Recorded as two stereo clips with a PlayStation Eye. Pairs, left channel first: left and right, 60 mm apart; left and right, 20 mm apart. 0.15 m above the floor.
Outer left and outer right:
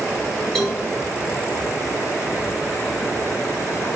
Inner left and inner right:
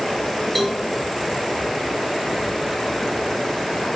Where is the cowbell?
5° left (ahead or behind), 2.5 m.